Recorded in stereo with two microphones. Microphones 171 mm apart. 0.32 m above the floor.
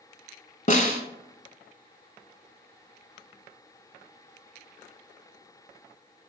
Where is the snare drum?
50° left (ahead or behind), 0.8 m.